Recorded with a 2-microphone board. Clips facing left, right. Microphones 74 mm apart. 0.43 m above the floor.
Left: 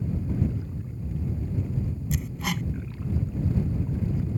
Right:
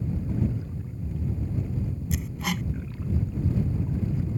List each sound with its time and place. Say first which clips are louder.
2.1 s hammering: even; centre (ahead or behind)